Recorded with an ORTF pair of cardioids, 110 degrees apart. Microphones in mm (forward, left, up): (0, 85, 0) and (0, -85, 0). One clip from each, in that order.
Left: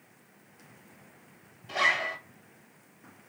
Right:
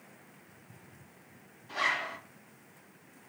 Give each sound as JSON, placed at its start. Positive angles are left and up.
{"t": 1.7, "sound": "a zipper", "azimuth_deg": 65, "distance_m": 1.8}